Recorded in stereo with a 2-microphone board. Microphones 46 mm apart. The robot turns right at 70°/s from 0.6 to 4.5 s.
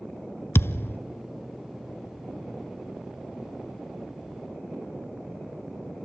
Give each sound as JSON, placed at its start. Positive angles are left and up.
{"t": 0.6, "sound": "a thud", "side_deg": 60, "distance_m": 0.6}